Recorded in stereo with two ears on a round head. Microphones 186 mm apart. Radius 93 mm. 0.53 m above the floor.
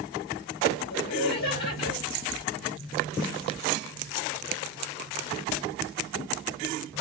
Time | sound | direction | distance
0.9 | laughter | 55° left (ahead or behind) | 2 m